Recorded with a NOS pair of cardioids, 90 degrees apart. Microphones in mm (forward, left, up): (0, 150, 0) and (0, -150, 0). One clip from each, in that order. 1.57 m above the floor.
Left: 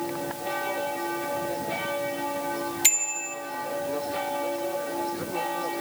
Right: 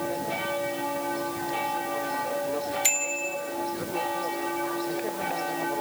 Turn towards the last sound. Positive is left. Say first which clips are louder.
# left 4 dB
turn(degrees=40)